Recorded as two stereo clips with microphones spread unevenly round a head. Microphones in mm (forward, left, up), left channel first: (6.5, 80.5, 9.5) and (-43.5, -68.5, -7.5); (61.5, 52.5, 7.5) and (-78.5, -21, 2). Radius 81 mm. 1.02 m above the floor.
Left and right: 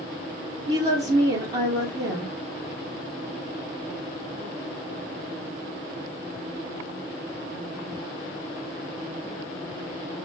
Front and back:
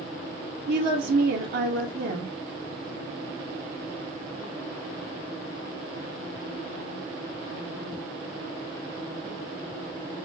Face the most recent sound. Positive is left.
turn(degrees=-175)